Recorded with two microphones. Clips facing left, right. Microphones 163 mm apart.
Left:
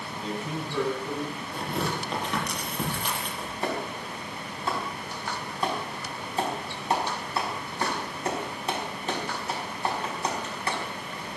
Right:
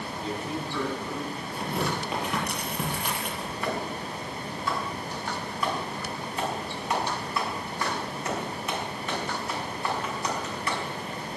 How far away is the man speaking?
About 8 m.